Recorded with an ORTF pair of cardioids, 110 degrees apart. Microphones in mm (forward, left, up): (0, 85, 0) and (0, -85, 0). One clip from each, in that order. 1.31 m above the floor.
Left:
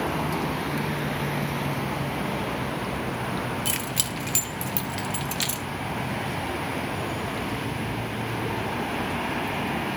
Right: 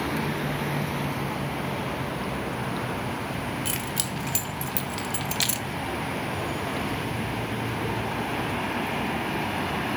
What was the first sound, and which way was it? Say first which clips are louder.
Keys jangling: left 2 dB; 15° left.